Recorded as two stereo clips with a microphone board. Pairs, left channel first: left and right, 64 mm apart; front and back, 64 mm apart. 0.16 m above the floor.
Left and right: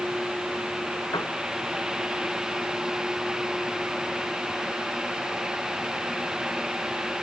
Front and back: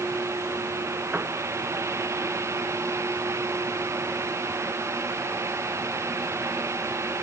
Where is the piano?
115° left.